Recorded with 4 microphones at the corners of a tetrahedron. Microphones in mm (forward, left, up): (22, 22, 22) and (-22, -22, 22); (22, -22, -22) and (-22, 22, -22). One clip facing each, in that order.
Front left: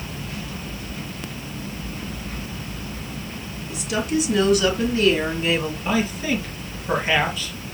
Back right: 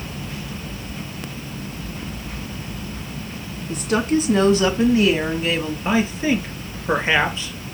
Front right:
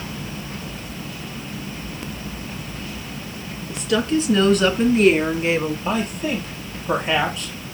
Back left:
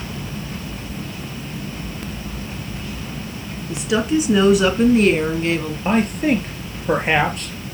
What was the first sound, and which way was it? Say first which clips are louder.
A woman speaking: back right 4 dB, back left 1 dB; 160° right.